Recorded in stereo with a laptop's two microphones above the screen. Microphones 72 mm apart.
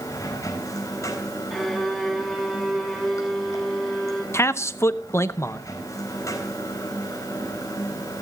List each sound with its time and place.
0.0 s running water: 45° left (ahead or behind), 4.5 m
1.5 s a violin: centre (ahead or behind), 3 m
4.3 s a man speaking: 35° left (ahead or behind), 0.7 m